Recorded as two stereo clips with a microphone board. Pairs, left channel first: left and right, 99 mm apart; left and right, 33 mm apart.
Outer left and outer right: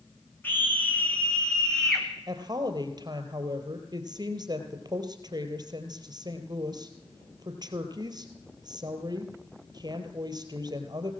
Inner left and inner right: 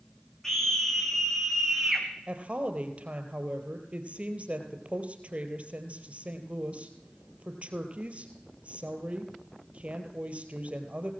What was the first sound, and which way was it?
A scream, 20° left (ahead or behind).